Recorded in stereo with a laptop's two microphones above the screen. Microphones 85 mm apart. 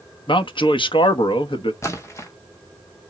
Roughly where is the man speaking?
Left.